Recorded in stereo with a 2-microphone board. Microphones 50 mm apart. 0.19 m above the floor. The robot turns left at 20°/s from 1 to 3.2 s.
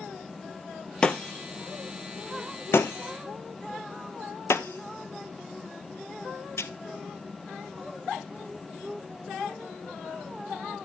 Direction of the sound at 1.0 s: 20° left (ahead or behind).